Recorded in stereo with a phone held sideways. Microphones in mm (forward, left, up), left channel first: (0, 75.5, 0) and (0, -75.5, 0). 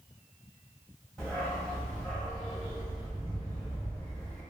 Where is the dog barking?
5° left (ahead or behind), 1.7 m.